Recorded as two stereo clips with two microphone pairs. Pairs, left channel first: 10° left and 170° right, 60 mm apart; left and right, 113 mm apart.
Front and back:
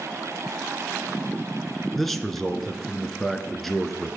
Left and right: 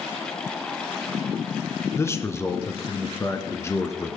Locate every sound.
1.9 s a man speaking: 95° left, 1.7 m